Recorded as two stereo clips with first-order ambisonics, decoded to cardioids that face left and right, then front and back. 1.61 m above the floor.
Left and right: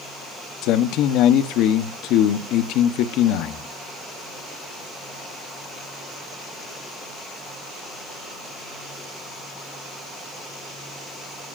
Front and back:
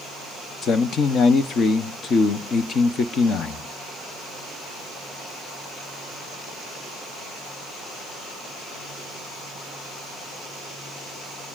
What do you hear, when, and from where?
0.6 s a man speaking: 60° left, 0.7 m